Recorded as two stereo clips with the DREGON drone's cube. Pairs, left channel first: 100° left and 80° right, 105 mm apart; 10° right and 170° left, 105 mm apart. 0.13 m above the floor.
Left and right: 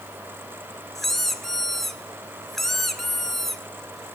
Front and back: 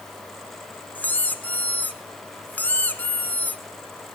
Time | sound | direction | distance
0.9 | a squeak | 20° left | 0.9 m